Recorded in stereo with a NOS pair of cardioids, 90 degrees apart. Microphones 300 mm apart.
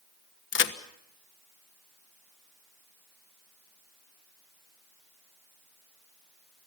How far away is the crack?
About 1.4 m.